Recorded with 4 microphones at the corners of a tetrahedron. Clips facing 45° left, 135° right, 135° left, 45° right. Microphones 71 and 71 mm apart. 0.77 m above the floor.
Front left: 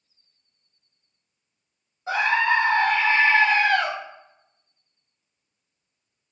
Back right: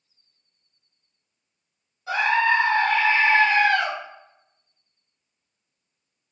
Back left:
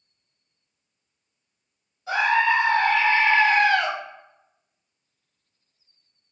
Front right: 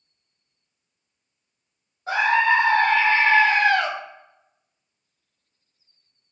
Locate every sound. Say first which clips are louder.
2.1 s a scream: back right 1 dB, front right 1 dB; 10° right, 0.7 m